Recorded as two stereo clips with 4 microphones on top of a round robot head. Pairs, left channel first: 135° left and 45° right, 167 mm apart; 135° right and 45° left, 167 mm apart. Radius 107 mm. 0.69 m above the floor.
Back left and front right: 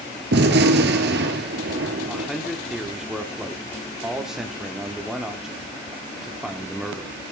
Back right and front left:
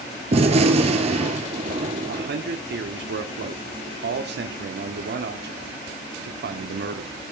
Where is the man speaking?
45° left, 1.5 m.